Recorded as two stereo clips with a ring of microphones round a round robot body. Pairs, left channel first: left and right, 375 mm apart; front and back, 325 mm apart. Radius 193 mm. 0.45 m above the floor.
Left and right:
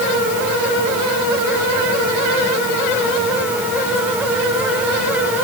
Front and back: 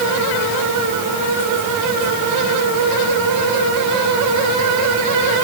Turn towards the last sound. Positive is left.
No sound to turn to.